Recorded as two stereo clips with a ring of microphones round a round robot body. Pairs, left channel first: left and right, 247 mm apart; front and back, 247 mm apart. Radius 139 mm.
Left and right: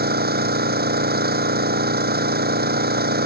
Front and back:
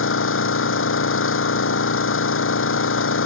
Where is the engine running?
40° right.